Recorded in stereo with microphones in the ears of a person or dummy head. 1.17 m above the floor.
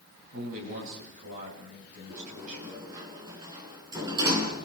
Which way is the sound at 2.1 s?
20° right (ahead or behind).